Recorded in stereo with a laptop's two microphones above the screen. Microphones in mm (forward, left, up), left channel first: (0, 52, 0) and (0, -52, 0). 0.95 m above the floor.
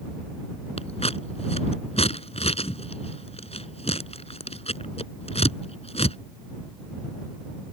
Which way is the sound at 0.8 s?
80° left.